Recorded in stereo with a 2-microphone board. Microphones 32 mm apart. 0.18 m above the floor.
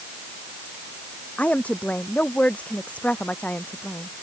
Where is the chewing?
No chewing in this recording.